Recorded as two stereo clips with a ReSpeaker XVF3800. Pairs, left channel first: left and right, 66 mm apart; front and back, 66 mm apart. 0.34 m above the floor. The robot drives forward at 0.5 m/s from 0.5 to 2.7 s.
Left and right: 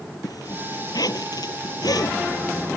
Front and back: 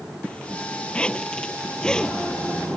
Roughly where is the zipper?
Left.